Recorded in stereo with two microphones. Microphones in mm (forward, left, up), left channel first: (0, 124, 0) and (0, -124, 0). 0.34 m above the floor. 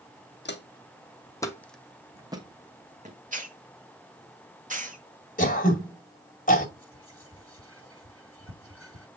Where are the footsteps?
45° left (ahead or behind), 1.2 m; by 3.2 s 30° right (ahead or behind), 1.6 m.